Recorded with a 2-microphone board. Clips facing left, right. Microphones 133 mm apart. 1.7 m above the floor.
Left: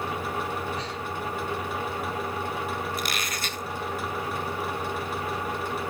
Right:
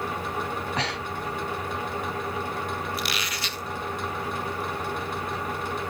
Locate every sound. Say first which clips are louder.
0.8 s breathing: right 2 dB; 85° right, 0.7 m
3.0 s a squeak: even; 45° left (ahead or behind), 1.1 m